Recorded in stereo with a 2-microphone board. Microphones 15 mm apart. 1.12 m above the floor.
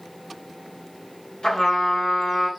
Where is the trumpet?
65° left (ahead or behind), 2.5 m.